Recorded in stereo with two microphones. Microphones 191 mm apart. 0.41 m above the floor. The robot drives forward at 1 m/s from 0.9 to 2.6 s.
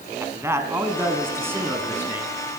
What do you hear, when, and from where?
0.2 s a man speaking: 15° right (ahead or behind), 3 m; by 2.3 s 10° right (ahead or behind), 4.5 m